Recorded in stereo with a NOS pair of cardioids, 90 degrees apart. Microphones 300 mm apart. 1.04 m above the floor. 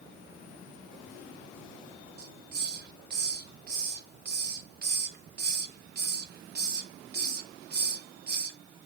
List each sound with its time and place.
2.2 s a hiss: 35° right, 0.7 m